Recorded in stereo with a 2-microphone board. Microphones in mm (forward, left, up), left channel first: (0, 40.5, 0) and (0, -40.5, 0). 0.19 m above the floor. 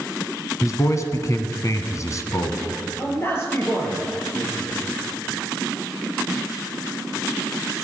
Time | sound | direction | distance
0.6 | a man speaking | 45° left (ahead or behind) | 1.3 m
3.0 | a man speaking | 30° left (ahead or behind) | 4.5 m